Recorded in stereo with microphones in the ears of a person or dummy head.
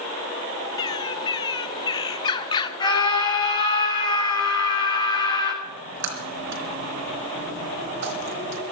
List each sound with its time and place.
0.8 s a bird: 25° left (ahead or behind), 1.0 m
2.8 s a scream: 25° left (ahead or behind), 5.5 m
5.6 s a splash: 60° right (ahead or behind), 3.5 m